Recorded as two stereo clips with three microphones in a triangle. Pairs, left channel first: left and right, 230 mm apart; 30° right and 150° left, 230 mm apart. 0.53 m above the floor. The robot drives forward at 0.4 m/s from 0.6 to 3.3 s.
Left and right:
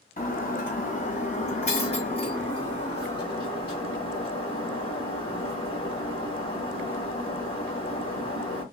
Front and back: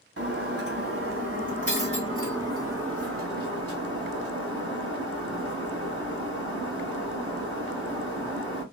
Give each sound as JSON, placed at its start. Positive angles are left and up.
{"t": 0.2, "sound": "breaking glass", "azimuth_deg": 140, "distance_m": 1.4}